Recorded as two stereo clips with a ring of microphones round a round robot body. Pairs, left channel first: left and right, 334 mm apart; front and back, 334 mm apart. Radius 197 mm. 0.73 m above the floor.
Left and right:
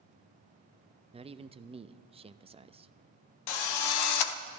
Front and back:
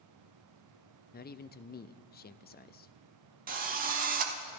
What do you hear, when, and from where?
1.1 s a man speaking: 30° right, 0.7 m
3.5 s a drill: 115° left, 0.9 m